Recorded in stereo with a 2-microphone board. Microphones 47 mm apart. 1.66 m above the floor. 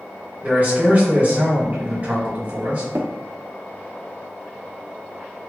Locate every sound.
0.4 s a man speaking: 40° right (ahead or behind), 1.4 m
3.0 s tapping: 80° right, 0.5 m